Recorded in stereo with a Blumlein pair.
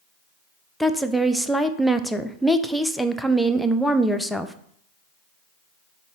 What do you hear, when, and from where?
0.8 s a woman speaking: straight ahead, 0.5 m